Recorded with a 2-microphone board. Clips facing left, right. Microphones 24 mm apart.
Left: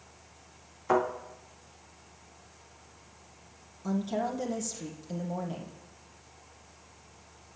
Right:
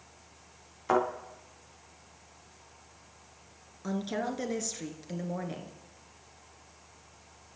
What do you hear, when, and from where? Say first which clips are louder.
0.9 s a thud: even; 25° right (ahead or behind), 5 m
3.8 s a woman speaking: left 2 dB; 40° right (ahead or behind), 1.3 m